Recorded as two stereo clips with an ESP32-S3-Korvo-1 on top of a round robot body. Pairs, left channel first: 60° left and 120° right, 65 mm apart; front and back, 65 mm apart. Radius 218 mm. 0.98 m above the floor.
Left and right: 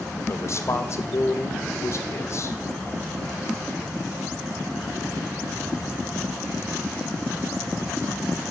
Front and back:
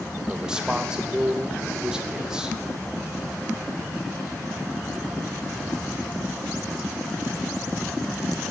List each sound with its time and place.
0.3 s a man speaking: 100° left, 1.4 m